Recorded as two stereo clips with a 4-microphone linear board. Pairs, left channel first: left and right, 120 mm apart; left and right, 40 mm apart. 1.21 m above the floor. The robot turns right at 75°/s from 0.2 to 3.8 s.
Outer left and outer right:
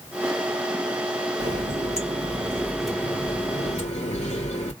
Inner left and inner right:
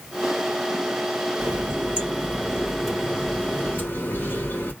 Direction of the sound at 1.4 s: 110° right.